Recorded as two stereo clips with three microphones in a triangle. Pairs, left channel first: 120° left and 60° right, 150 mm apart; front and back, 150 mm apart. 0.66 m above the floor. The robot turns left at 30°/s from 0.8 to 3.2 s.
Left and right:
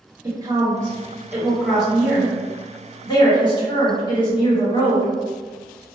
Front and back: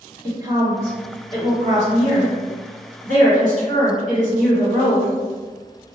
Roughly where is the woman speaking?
Behind right.